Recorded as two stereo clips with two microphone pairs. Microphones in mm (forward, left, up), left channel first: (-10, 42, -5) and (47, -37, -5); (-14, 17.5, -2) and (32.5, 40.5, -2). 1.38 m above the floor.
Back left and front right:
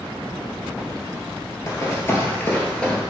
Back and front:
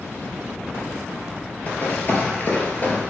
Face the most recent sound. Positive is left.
turn(degrees=-155)